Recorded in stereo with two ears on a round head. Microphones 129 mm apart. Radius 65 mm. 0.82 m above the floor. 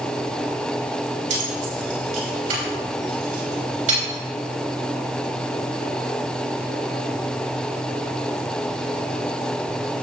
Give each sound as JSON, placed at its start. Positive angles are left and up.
{"t": 1.3, "sound": "keys jangling", "side_deg": -55, "distance_m": 3.5}